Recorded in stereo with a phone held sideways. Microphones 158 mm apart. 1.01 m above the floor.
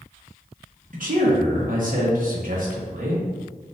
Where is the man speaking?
60° right (ahead or behind), 1.2 m.